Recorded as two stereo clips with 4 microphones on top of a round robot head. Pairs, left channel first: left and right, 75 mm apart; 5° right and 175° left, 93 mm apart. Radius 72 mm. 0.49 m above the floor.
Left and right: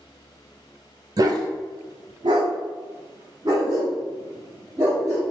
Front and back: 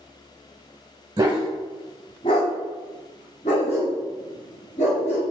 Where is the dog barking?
120° right, 0.5 m; by 5.2 s 20° right, 2.5 m.